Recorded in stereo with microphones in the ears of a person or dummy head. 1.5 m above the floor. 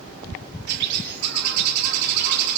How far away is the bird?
About 2 m.